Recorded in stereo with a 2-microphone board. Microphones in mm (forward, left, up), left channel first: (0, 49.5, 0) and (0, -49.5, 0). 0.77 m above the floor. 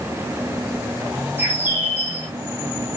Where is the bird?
20° right (ahead or behind), 1.7 m.